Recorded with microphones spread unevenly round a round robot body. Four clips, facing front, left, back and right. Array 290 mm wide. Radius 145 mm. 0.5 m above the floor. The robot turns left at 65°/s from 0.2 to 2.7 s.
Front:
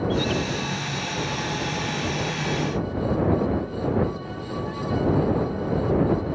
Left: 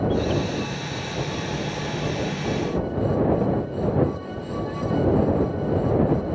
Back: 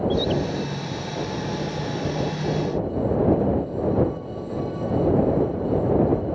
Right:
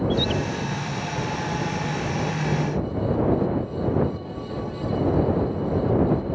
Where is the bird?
125° right; by 0.4 s 135° right.